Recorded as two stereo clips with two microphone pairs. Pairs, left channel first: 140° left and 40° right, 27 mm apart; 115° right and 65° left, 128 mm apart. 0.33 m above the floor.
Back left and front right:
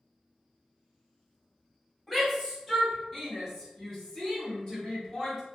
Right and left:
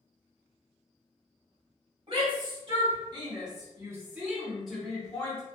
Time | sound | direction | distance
2.1 | a shout | 50° left | 1.5 m